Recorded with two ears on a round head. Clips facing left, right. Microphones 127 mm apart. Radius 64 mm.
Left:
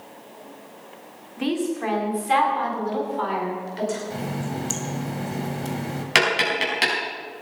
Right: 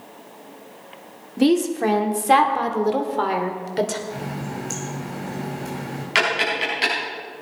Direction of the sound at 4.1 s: 35° left (ahead or behind).